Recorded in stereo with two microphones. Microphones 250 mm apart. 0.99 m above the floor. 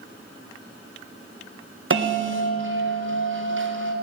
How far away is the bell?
About 0.6 m.